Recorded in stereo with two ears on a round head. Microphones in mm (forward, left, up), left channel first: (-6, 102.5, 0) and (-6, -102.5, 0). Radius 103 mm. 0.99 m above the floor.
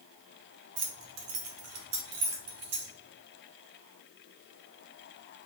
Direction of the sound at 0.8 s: 55° right (ahead or behind).